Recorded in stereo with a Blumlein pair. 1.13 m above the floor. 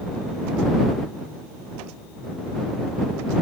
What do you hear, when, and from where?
Only background noise.